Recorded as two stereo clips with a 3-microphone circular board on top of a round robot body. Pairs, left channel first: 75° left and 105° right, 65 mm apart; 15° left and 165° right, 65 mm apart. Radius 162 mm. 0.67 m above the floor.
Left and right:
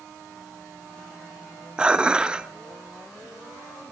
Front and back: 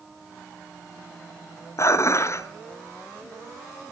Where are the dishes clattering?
30° right, 0.9 m.